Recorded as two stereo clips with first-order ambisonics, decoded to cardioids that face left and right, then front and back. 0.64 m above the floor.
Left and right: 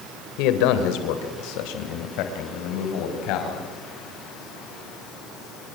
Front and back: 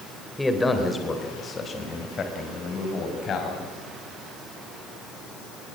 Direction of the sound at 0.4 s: 85° left.